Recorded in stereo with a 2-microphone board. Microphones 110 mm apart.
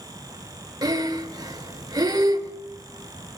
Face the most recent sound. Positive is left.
turn(degrees=-35)  # may be behind; listen again after turning